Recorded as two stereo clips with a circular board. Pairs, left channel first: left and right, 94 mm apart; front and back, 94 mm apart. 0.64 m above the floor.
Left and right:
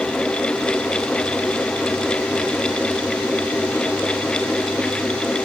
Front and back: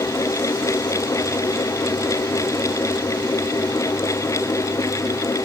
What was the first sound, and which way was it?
Only background noise.